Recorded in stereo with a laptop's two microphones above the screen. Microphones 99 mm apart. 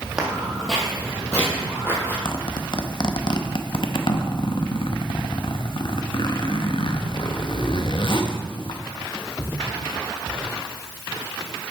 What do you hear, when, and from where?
0.2 s footsteps: 10° right (ahead or behind), 2.0 m; by 2.1 s 25° left (ahead or behind), 2.5 m
2.2 s a zipper: 55° left (ahead or behind), 0.7 m